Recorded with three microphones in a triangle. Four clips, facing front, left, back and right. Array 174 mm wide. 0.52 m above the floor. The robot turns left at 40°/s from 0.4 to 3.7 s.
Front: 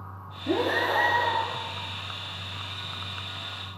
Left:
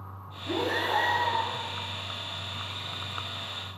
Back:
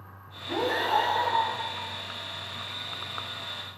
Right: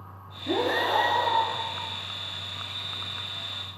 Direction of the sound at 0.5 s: 20° right.